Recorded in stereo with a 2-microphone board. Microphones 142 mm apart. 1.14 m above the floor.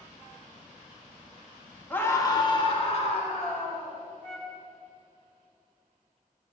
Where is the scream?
15° left (ahead or behind), 1.7 m; by 3.9 s 60° left (ahead or behind), 3 m.